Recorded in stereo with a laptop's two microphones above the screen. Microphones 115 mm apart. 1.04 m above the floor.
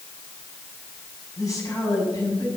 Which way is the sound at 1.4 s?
30° left (ahead or behind).